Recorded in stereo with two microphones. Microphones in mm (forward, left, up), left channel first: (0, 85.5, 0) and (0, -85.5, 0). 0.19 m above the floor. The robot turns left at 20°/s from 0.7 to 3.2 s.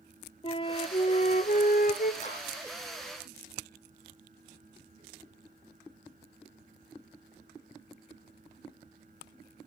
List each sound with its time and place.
0.4 s a flute: 30° left (ahead or behind), 0.8 m; by 2.1 s 60° left (ahead or behind), 0.8 m
2.2 s a clap: 40° left (ahead or behind), 6.5 m; by 2.4 s 45° left (ahead or behind), 6.5 m